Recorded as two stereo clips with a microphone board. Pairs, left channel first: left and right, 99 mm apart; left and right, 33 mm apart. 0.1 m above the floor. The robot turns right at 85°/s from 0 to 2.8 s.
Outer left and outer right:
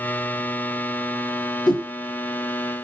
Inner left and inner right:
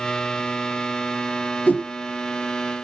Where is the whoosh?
45° left (ahead or behind), 1.5 m; by 1.9 s 35° left (ahead or behind), 1.5 m.